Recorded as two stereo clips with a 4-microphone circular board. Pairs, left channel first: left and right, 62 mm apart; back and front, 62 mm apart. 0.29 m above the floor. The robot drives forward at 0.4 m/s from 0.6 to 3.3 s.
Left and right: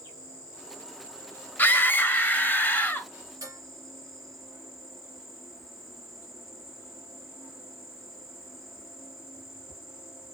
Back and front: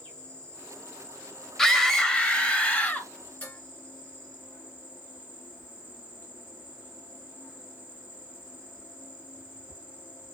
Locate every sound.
0.0 s an insect: 105° right, 3.5 m; by 10.3 s 120° right, 4 m
1.6 s a scream: 100° left, 1.5 m; by 3.1 s 135° left, 1.7 m
3.4 s dishes clattering: 115° right, 4.5 m